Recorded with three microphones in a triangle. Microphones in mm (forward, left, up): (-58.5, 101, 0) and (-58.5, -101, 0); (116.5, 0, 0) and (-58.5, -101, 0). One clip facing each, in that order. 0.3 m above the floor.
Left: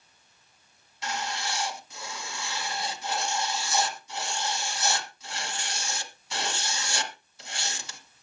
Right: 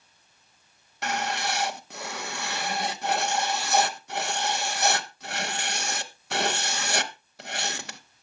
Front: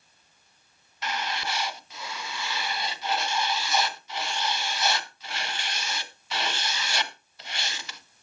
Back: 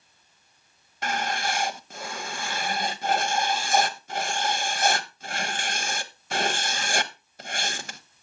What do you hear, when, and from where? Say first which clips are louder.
1.0 s writing: right 4 dB, back 4 dB; 110° right, 1.0 m